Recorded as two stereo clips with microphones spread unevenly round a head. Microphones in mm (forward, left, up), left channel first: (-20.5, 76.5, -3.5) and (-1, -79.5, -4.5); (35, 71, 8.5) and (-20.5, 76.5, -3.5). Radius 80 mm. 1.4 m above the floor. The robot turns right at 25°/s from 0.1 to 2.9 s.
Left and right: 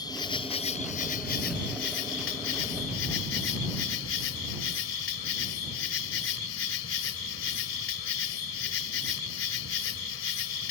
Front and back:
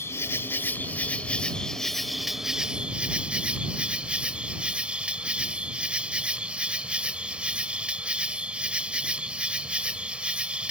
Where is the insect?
30° left; by 10.7 s 100° left.